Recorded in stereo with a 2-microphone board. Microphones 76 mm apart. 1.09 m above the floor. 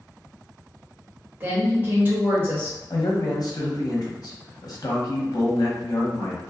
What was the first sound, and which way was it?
A woman speaking, 30° right (ahead or behind).